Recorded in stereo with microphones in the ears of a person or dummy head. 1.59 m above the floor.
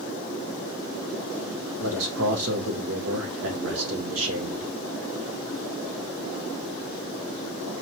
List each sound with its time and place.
1.8 s a man speaking: 80° right, 1.4 m